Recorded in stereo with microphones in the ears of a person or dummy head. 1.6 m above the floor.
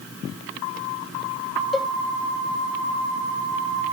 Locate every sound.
1.7 s a cowbell: centre (ahead or behind)